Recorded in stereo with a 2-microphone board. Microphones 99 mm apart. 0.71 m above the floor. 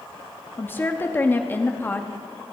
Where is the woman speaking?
20° left (ahead or behind), 0.8 m.